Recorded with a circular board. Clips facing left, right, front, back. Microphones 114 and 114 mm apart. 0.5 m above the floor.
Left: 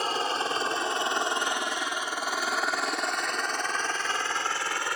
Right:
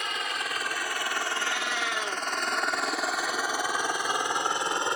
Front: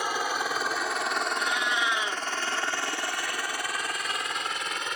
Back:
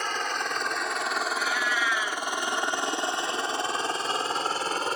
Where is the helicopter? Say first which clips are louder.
Left 5 dB, front 1 dB; 75° left; by 5.0 s 145° right.